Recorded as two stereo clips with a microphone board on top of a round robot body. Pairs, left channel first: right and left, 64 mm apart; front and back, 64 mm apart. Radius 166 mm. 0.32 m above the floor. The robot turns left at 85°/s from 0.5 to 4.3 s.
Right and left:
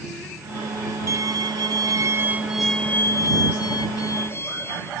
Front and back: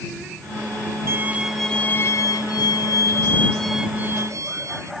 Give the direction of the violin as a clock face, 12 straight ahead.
8 o'clock.